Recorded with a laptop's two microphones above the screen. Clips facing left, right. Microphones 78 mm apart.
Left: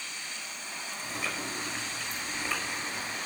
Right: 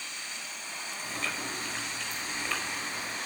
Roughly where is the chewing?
Centre.